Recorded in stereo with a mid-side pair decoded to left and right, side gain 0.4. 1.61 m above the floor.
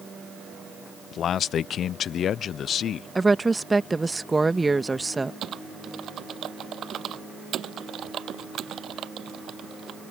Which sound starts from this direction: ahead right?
Typing on a keyboard, at 5.4 s.